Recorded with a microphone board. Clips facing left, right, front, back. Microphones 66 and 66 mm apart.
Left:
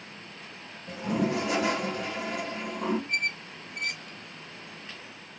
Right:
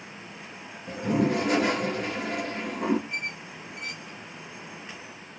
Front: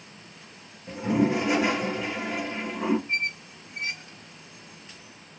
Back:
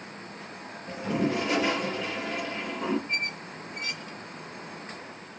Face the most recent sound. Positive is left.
turn(degrees=55)